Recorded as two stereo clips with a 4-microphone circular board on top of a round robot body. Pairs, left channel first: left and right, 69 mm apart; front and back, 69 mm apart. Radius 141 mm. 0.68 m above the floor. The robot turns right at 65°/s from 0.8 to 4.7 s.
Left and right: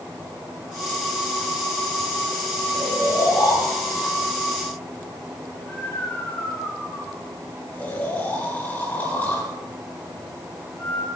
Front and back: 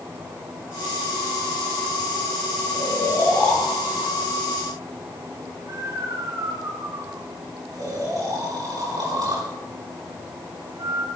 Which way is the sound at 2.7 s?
30° left.